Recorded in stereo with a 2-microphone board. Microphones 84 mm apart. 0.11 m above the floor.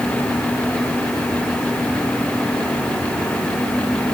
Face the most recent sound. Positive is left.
No sound to turn to.